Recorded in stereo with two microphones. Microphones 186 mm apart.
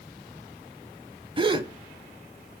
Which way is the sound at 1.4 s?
30° right (ahead or behind).